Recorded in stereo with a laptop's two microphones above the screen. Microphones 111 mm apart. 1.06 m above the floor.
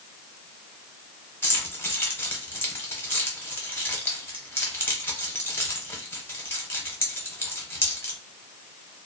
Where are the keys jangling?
20° left (ahead or behind), 0.6 m.